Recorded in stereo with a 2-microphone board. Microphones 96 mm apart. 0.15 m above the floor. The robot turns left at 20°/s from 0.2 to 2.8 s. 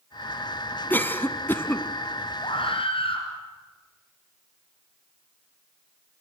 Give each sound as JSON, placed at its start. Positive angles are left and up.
{"t": 0.9, "sound": "a cough", "side_deg": 20, "distance_m": 1.1}
{"t": 2.4, "sound": "a scream", "side_deg": 65, "distance_m": 2.5}